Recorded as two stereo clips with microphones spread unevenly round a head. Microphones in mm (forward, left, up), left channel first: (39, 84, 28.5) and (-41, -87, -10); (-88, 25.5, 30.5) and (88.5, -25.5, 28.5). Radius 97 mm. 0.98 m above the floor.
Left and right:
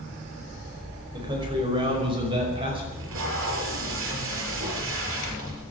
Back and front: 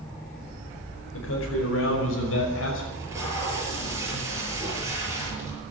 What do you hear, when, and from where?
1.1 s a man speaking: 175° left, 5 m; by 2.8 s straight behind, 6 m
2.9 s tape being pulled: 95° right, 7.5 m